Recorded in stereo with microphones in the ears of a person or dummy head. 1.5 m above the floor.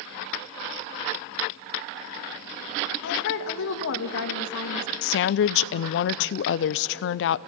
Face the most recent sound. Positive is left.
turn(degrees=65)  # may be behind; listen again after turning